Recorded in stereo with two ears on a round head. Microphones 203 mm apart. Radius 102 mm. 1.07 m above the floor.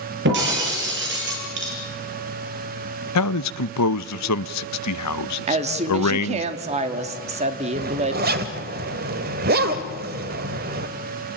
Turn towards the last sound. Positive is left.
turn(degrees=-45)  # may be behind; listen again after turning